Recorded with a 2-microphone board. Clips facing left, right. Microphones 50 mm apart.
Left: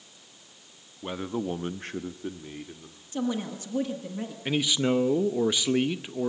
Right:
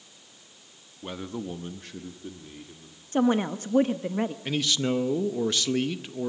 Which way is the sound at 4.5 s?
15° left (ahead or behind).